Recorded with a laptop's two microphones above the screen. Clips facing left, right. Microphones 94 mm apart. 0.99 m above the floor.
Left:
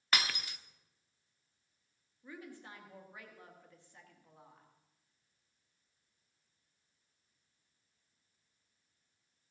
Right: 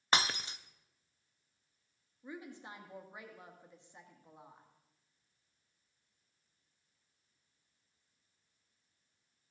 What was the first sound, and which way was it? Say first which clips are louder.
Breaking glass: right 3 dB; 30° right (ahead or behind).